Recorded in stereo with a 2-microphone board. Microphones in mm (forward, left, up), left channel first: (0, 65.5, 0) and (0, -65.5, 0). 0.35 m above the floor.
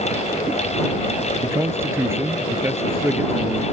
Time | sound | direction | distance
1.4 | a man speaking | 20° right (ahead or behind) | ?